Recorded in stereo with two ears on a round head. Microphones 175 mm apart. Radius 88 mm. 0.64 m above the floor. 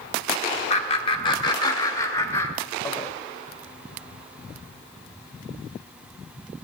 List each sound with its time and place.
0.7 s laughter: 35° left (ahead or behind), 1.4 m; by 3.1 s 10° left (ahead or behind), 2.5 m